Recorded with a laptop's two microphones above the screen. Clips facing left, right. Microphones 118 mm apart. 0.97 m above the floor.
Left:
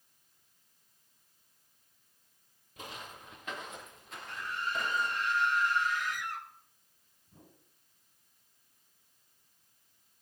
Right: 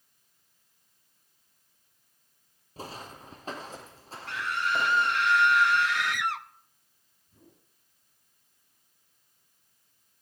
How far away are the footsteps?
About 1.3 m.